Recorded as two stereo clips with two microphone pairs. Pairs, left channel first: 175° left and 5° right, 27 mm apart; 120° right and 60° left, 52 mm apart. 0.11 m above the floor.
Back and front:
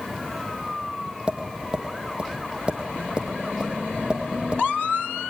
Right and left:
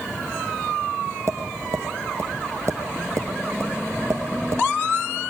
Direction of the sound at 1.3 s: 40° left.